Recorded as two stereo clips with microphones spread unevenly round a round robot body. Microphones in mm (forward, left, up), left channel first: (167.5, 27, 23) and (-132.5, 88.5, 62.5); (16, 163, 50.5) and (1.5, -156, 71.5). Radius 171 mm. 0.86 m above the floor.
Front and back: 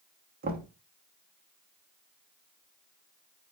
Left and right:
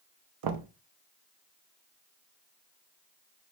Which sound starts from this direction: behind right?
Knocking, at 0.4 s.